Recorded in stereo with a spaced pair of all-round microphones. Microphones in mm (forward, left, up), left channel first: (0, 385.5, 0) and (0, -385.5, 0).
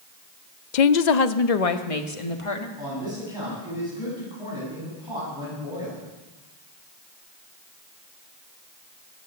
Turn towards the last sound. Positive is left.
turn(degrees=-5)  # may be behind; listen again after turning